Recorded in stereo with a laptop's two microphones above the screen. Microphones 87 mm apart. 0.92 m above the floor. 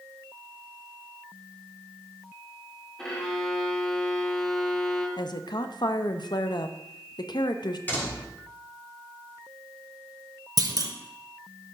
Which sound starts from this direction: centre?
A violin, at 3.0 s.